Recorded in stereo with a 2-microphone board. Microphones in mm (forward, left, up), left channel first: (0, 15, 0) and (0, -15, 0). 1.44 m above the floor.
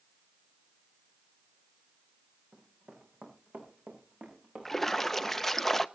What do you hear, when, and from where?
2.5 s running footsteps: 65° right (ahead or behind), 4.5 m; by 5.7 s 45° right (ahead or behind), 6 m
4.7 s a splash: 5° left (ahead or behind), 0.5 m